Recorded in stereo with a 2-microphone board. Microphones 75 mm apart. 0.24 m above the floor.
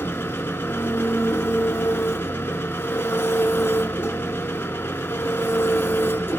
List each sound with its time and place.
0.0 s an engine running: 30° left (ahead or behind), 0.8 m